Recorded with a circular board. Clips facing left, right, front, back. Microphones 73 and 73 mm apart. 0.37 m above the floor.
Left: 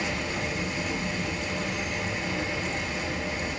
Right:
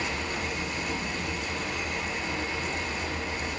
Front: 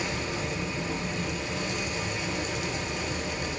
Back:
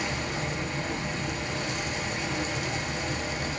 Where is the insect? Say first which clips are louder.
Left 1 dB, even; 160° left, 4.5 m.